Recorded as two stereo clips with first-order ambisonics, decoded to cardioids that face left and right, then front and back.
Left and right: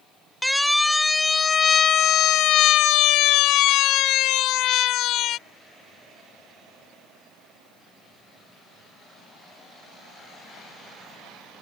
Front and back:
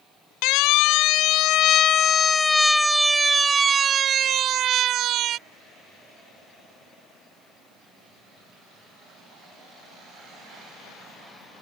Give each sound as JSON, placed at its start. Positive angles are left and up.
{"t": 0.4, "sound": "a siren", "azimuth_deg": 5}